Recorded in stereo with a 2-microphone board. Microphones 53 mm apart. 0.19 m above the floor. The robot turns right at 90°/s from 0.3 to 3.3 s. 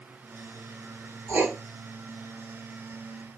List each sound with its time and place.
1.3 s writing: 45° right (ahead or behind), 1.7 m; by 1.5 s 20° right (ahead or behind), 1.7 m